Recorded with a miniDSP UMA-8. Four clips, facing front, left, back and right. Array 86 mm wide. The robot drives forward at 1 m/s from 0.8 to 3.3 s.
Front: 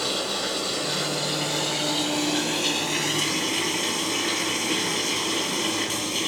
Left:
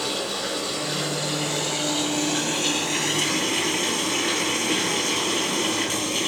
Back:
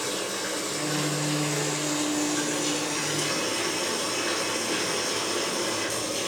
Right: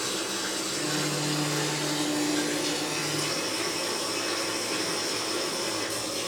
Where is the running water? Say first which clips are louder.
Left 4 dB, front 2 dB; 35° left, 5.5 m; by 6.3 s 60° left, 3.5 m.